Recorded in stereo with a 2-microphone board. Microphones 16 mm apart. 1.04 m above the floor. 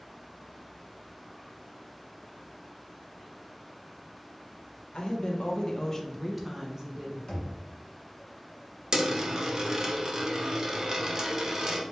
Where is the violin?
I don't hear a violin.